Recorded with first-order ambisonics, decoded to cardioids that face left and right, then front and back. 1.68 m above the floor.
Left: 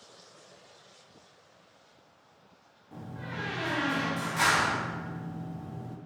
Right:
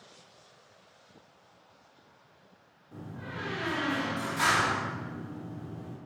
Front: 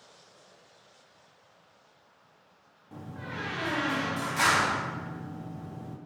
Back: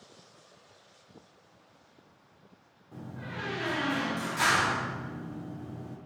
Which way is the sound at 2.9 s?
25° left.